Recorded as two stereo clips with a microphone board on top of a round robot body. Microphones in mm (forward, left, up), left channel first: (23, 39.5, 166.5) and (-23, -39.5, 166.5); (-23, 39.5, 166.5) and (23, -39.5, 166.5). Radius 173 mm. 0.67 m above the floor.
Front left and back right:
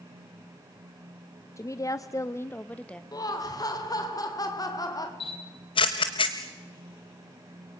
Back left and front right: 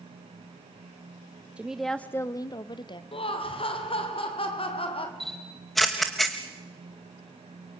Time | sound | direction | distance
1.6 | a woman speaking | 15° left | 1.2 m
3.1 | laughter | 110° left | 3.5 m
5.2 | a camera shutter | 30° left | 0.6 m